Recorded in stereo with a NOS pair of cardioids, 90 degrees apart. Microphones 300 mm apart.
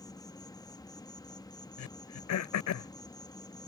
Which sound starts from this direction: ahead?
An insect, at 0.0 s.